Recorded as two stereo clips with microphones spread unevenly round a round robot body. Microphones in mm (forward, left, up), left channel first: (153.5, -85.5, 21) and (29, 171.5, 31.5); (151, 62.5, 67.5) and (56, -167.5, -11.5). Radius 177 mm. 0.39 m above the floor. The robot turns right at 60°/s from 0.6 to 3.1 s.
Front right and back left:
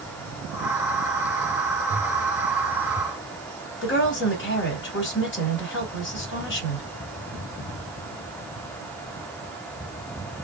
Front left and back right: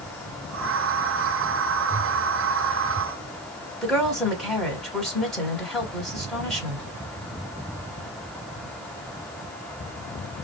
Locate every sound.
3.8 s a woman speaking: 35° right, 1.9 m